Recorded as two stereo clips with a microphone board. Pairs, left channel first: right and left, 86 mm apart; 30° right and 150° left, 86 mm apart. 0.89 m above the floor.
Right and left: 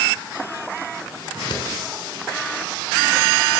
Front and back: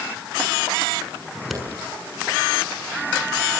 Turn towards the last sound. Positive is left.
turn(degrees=-120)